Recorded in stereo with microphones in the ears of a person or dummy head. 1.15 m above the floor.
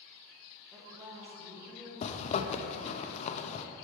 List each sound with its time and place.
0.7 s a woman speaking: 5° right (ahead or behind), 1.3 m; by 1.9 s 15° right (ahead or behind), 2 m
2.0 s a zipper: 35° left (ahead or behind), 0.6 m